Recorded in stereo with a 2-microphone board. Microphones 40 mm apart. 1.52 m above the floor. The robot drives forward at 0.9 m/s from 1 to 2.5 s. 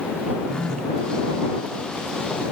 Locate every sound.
0.5 s a phone buzzing: 20° left (ahead or behind), 1.6 m